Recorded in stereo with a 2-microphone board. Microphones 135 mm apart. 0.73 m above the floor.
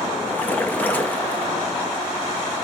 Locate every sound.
0.3 s a splash: 10° left (ahead or behind), 0.6 m